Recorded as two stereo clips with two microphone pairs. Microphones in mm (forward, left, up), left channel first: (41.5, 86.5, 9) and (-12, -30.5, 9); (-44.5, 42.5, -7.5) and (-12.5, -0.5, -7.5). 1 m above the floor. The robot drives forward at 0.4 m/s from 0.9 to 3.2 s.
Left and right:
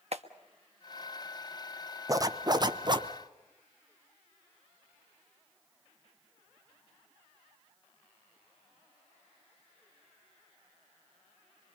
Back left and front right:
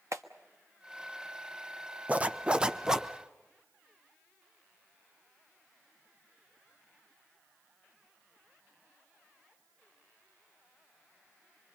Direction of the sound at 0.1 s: 80° right.